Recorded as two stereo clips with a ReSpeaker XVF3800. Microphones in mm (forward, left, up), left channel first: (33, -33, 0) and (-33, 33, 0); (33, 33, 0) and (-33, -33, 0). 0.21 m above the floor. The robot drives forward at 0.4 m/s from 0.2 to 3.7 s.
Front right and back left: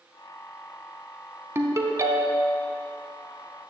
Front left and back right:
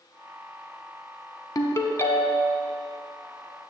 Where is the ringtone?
80° left, 0.7 m; by 2.5 s 120° left, 0.8 m.